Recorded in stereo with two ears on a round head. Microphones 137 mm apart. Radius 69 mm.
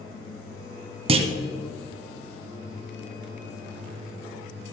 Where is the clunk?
40° right (ahead or behind), 0.9 m.